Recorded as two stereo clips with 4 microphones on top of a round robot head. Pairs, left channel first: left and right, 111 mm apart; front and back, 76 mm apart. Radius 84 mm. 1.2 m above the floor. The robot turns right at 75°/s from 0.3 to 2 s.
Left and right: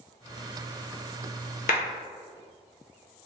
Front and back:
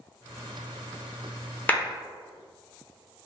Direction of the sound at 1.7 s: 70° left.